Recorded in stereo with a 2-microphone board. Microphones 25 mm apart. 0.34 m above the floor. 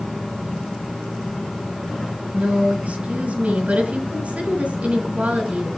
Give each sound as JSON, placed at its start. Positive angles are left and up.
{"t": 2.3, "sound": "a woman speaking", "side_deg": -70, "distance_m": 3.0}